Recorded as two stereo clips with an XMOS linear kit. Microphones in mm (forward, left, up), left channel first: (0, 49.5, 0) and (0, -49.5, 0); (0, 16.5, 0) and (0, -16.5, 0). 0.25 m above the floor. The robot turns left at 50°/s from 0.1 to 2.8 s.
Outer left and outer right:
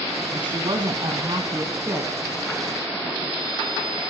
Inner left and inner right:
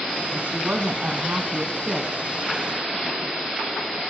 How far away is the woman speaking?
About 2.5 m.